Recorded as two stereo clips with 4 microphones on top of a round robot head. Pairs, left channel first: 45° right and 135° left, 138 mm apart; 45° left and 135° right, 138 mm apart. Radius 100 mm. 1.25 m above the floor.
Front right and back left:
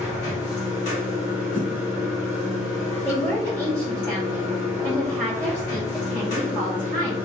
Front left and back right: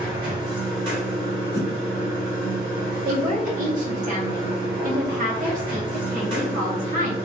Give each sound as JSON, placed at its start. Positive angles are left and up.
{"t": 0.0, "sound": "running water", "azimuth_deg": -75, "distance_m": 1.5}
{"t": 1.5, "sound": "a whoosh", "azimuth_deg": 45, "distance_m": 1.3}
{"t": 3.0, "sound": "a woman speaking", "azimuth_deg": -125, "distance_m": 0.8}